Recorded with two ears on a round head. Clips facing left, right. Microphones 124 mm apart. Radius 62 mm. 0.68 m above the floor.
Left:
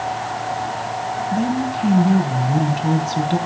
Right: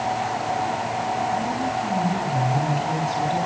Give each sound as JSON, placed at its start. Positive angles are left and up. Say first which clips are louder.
{"t": 1.3, "sound": "a woman speaking", "louder": "left 3 dB", "side_deg": 65, "distance_m": 5.5}